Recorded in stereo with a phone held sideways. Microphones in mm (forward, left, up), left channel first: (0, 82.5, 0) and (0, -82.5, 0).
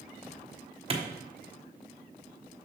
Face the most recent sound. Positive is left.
turn(degrees=-35)  # may be behind; listen again after turning